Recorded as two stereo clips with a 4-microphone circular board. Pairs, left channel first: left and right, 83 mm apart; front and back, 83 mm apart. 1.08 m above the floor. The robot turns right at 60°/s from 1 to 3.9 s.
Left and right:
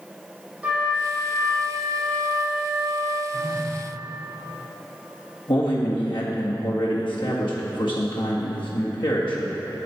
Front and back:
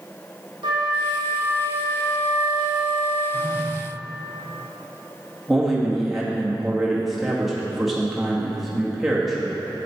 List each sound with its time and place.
0.6 s a flute: 165° right, 1.9 m; by 3.2 s 30° right, 1.9 m
3.3 s a phone buzzing: 55° left, 1.9 m; by 3.8 s 85° left, 1.9 m
5.5 s a man speaking: 95° left, 1.8 m